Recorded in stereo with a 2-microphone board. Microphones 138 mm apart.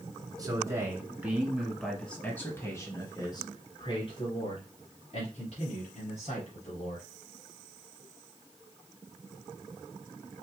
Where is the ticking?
I don't hear ticking.